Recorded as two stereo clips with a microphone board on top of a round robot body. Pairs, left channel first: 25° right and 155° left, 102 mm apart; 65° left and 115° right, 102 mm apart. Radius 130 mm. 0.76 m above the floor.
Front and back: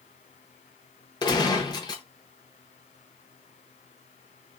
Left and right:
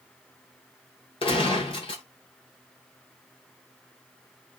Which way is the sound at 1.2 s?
30° left.